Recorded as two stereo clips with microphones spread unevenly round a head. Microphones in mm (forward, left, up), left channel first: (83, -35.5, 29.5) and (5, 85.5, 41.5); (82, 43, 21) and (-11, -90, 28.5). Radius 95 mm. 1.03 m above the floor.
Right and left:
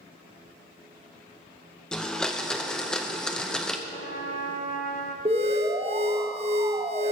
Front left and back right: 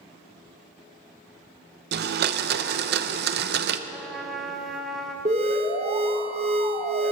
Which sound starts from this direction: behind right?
A blender, at 1.9 s.